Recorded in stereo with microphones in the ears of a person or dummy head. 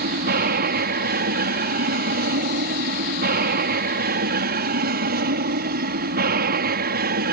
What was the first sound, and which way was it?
An aircraft, 45° right (ahead or behind).